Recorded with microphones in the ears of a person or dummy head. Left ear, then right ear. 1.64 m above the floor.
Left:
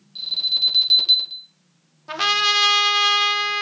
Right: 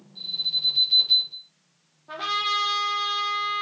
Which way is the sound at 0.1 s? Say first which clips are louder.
Left 5 dB; 50° left (ahead or behind).